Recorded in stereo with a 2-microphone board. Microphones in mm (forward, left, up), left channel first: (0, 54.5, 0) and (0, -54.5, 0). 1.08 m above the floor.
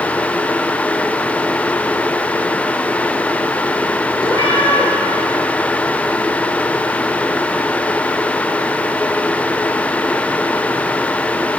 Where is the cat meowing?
35° left (ahead or behind), 5.5 m.